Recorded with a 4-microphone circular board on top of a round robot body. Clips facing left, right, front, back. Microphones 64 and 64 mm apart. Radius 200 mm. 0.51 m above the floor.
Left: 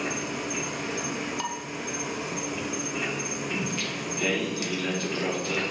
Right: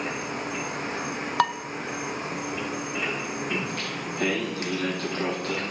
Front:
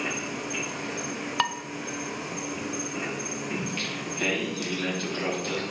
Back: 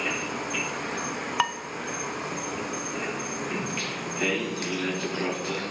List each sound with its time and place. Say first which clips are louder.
0.0 s an insect: even, back 2 dB; 140° right, 1.0 m
1.4 s dishes clattering: right 9 dB, back 1 dB; 100° right, 0.5 m
3.5 s singing: right 1 dB, back 1 dB; 100° right, 4.5 m